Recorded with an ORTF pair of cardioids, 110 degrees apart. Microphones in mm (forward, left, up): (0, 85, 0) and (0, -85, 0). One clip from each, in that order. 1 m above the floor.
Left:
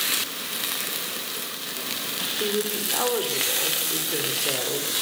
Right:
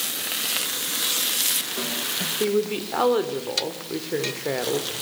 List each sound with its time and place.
2.4 s a woman speaking: 30° right, 3.5 m